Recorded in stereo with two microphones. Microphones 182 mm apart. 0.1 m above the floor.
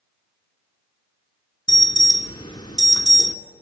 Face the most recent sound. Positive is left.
turn(degrees=20)  # may be behind; listen again after turning